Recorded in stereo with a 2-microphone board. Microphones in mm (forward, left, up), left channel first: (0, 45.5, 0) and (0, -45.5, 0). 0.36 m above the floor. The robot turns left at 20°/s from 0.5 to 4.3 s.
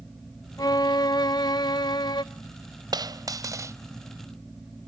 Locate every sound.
0.6 s a violin: 120° left, 0.5 m; by 2.2 s 85° left, 0.5 m
2.9 s a dropped coin: 50° right (ahead or behind), 0.5 m; by 3.8 s 35° right (ahead or behind), 0.5 m